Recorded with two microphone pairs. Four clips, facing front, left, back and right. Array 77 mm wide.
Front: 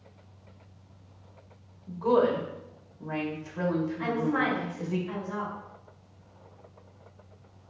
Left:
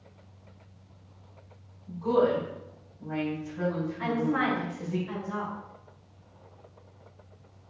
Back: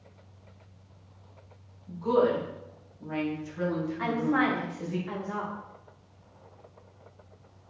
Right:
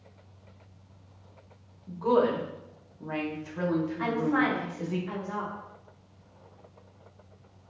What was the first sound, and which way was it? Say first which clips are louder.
A woman speaking: even, front 1 dB; 50° right.